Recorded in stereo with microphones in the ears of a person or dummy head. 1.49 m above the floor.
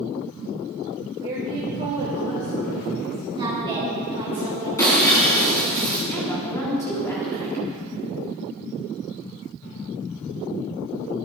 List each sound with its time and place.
1.2 s a woman speaking: 25° right (ahead or behind), 2.5 m; by 3.2 s 50° right (ahead or behind), 3 m
3.4 s a woman speaking: 25° right (ahead or behind), 3.5 m
4.8 s breaking glass: 20° left (ahead or behind), 4 m
6.1 s a woman speaking: 15° left (ahead or behind), 3.5 m